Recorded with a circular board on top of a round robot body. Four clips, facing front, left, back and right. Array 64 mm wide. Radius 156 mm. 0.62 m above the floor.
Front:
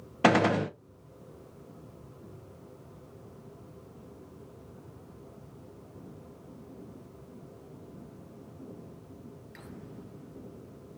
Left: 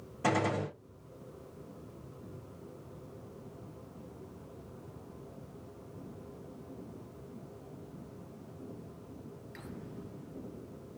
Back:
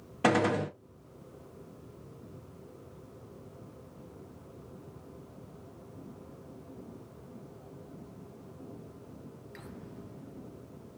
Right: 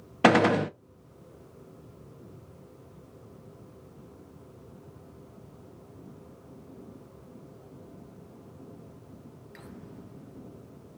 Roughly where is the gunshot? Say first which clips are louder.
Right 10 dB, front 3 dB; right.